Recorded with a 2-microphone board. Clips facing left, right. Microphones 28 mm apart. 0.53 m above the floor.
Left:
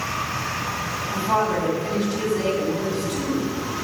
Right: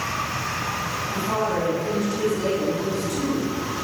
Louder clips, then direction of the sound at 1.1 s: Left 4 dB; 35° left (ahead or behind).